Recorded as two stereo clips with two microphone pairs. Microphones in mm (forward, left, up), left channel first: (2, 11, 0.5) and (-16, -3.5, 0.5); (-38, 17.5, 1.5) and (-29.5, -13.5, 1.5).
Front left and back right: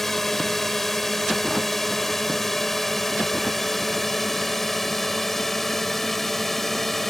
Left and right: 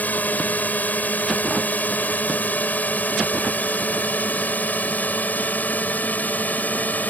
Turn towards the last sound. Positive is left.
turn(degrees=115)